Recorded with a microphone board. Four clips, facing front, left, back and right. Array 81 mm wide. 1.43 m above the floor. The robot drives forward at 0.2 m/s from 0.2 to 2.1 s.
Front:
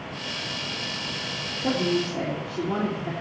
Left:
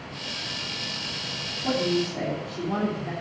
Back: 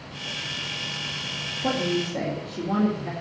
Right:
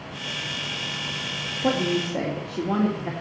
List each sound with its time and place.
1.6 s a woman speaking: 105° right, 2 m